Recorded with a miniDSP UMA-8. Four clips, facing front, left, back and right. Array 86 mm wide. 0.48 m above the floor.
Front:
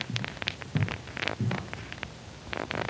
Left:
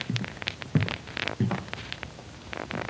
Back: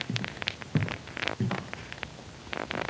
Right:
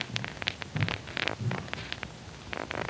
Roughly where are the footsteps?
Behind left.